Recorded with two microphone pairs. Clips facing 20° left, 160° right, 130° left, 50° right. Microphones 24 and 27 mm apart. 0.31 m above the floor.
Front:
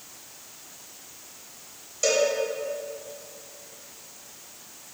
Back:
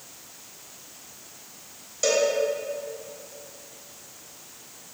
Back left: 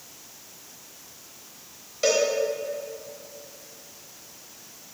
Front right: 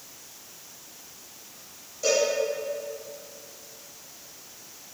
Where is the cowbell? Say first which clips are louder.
Even, back left 2 dB; 125° left, 3 m.